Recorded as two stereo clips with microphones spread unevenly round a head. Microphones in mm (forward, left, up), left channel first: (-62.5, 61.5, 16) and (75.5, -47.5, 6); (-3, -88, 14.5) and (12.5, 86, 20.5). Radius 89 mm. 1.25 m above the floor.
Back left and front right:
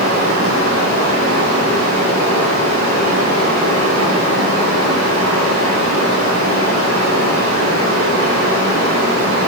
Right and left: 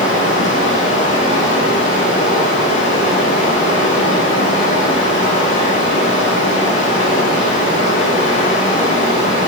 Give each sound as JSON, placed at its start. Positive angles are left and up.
{"t": 0.0, "sound": "running water", "azimuth_deg": -45, "distance_m": 8.0}